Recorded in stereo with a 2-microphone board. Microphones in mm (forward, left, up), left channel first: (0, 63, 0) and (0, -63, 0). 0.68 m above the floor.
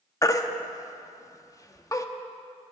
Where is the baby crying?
25° left (ahead or behind), 0.6 m.